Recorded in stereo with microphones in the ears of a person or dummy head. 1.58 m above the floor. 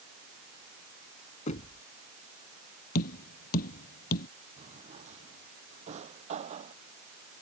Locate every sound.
1.5 s knocking: 40° left (ahead or behind)
3.0 s tapping: 50° left (ahead or behind)
4.6 s a drawer: 35° right (ahead or behind)